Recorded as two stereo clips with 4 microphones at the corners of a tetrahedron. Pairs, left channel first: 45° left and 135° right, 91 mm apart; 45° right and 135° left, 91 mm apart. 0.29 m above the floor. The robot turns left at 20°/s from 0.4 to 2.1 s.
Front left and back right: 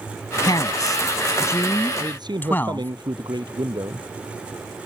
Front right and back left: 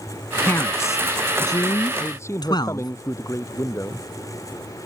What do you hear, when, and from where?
0.4 s a man speaking: 15° left; by 2.9 s 20° right
2.0 s a man speaking: 100° right; by 4.1 s 105° right